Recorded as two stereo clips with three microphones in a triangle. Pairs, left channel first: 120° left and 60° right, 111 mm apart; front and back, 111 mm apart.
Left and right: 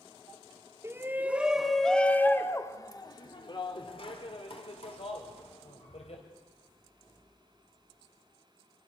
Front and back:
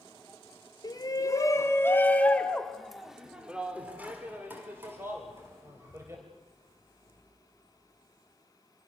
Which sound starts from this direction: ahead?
A shout, at 0.8 s.